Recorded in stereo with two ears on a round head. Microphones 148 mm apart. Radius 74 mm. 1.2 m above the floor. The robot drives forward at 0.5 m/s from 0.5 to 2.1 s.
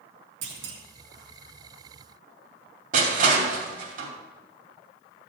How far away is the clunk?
About 1.9 m.